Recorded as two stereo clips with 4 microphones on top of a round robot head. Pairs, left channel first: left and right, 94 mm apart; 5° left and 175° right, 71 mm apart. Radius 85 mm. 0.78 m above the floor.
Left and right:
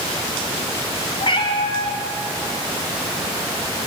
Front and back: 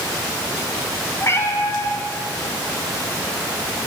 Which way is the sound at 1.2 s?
55° left.